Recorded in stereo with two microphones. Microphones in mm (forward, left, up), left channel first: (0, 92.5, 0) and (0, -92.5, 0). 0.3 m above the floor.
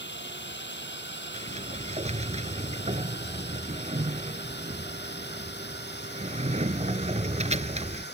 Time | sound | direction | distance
0.0 | a drone | 75° left (ahead or behind) | ?
1.3 | a sliding door | 40° right (ahead or behind) | ?